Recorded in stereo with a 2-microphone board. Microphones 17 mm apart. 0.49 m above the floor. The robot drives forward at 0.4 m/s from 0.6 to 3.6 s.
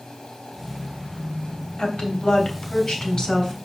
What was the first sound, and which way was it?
A woman speaking, 60° left (ahead or behind).